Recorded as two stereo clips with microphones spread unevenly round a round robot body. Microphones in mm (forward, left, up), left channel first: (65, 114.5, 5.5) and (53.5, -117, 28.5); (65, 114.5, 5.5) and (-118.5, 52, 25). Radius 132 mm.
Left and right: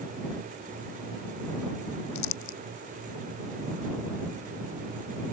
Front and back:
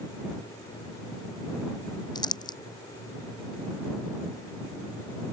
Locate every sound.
2.1 s crumpling: 90° left